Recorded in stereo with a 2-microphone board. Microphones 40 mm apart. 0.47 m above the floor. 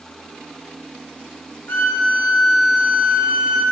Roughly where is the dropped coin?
I don't hear a dropped coin.